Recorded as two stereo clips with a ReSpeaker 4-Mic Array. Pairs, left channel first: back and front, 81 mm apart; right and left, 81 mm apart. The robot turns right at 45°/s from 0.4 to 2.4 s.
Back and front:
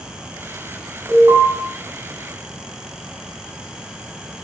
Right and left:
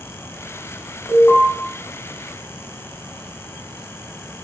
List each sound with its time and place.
1.1 s an alarm: 40° right, 3 m; by 1.5 s 25° right, 3 m